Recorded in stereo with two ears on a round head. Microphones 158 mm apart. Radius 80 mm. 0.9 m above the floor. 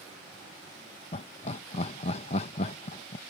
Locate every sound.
1.1 s laughter: 35° left (ahead or behind)